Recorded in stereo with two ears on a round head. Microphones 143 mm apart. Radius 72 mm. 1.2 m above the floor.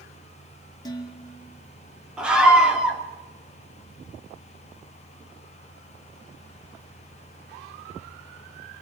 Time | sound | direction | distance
0.8 | dishes clattering | 25° left (ahead or behind) | 2 m
2.2 | a scream | 5° right (ahead or behind) | 3 m